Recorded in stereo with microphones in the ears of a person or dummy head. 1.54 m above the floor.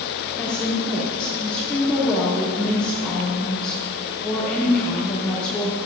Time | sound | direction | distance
0.4 | a woman speaking | 5° left (ahead or behind) | 3 m